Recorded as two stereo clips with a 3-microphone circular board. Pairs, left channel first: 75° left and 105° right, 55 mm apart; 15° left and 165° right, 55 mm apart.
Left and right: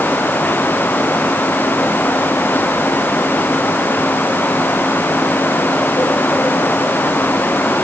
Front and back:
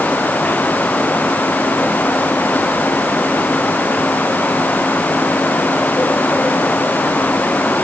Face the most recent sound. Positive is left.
No sound to turn to.